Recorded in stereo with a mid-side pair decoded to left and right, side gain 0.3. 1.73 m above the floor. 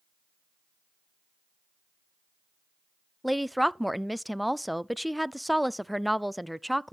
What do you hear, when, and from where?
3.2 s a woman speaking: straight ahead, 0.5 m